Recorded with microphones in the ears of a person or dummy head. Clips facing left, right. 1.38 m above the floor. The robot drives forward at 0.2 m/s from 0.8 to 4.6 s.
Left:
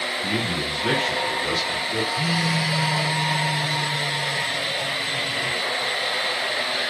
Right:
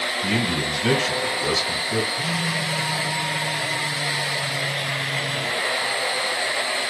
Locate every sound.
0.2 s a man speaking: 65° right (ahead or behind), 1.3 m; by 2.0 s 70° right (ahead or behind), 1.2 m
2.1 s a phone buzzing: 65° left (ahead or behind), 0.7 m; by 5.6 s 40° left (ahead or behind), 0.9 m